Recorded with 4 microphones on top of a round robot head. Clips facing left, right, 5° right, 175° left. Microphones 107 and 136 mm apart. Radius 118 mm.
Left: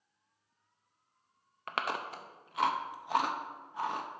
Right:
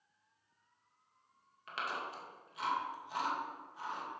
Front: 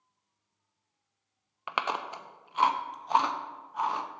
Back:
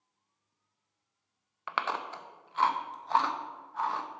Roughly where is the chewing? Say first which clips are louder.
Left 5 dB, front 1 dB; left.